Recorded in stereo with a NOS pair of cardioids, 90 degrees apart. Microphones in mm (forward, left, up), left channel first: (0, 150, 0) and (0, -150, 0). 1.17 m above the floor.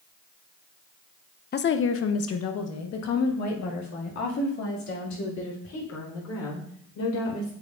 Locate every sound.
1.5 s a woman speaking: 35° left, 0.5 m; by 7.5 s 70° left, 4.5 m